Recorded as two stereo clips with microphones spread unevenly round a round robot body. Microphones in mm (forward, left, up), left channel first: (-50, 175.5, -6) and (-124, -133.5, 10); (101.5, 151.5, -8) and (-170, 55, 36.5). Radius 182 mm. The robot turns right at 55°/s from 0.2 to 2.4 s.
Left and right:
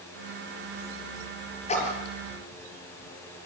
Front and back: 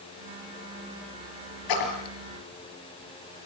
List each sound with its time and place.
1.7 s a splash: straight ahead, 5 m; by 2.1 s 25° left, 5 m